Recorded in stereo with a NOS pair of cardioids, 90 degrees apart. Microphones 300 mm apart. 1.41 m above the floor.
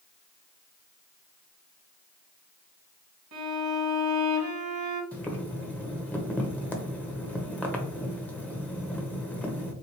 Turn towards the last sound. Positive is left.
turn(degrees=5)